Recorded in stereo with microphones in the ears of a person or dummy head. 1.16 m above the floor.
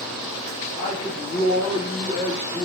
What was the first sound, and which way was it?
A man speaking, 25° left (ahead or behind).